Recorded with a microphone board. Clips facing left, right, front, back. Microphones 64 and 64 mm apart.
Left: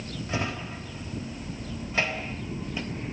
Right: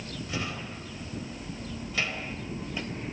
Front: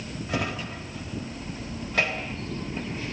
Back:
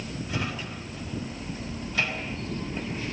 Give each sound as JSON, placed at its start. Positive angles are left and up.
{"t": 0.3, "sound": "a drawer", "azimuth_deg": 30, "distance_m": 3.0}